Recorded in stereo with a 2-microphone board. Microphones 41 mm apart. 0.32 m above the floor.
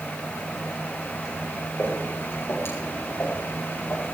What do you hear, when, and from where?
1.8 s footsteps: 90° left, 8.5 m